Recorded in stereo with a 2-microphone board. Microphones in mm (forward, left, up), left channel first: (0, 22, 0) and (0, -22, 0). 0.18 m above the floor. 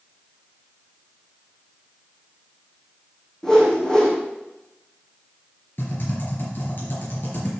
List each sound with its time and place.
3.4 s a whoosh: 20° left (ahead or behind), 3 m
5.8 s typing on a keyboard: 50° left (ahead or behind), 4.5 m